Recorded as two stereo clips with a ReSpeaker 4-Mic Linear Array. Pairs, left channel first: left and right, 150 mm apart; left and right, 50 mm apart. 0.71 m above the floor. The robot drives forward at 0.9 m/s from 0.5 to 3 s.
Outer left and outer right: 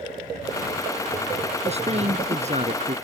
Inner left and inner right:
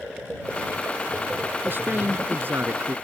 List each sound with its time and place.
1.6 s a man speaking: 45° right (ahead or behind); by 3.0 s 50° right (ahead or behind)